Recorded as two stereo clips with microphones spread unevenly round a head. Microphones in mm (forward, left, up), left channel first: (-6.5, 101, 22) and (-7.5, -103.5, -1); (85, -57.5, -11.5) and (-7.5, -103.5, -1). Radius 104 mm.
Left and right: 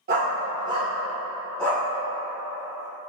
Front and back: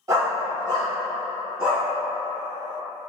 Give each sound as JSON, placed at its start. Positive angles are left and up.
{"t": 0.1, "sound": "a dog barking", "azimuth_deg": -125, "distance_m": 1.2}